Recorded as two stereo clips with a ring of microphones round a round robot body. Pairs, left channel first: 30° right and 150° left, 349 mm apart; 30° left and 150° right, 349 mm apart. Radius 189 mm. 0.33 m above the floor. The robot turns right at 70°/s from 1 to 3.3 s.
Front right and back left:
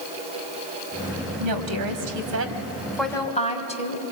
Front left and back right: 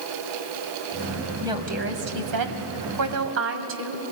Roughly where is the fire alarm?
No fire alarm in this recording.